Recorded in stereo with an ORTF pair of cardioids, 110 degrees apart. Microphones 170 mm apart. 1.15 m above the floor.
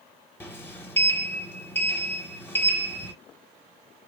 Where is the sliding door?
15° left, 0.9 m.